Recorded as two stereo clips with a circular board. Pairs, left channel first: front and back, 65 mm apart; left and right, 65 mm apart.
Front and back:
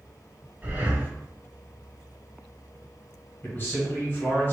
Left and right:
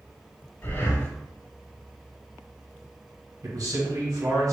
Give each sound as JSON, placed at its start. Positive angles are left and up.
{"t": 0.6, "sound": "breathing", "azimuth_deg": 125, "distance_m": 1.2}
{"t": 3.4, "sound": "a man speaking", "azimuth_deg": -60, "distance_m": 1.7}